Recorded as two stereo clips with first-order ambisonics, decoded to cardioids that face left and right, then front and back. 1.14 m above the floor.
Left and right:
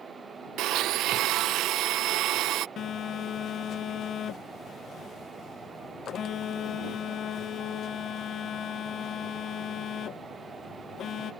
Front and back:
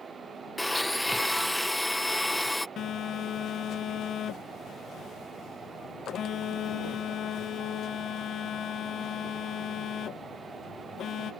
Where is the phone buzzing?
45° left.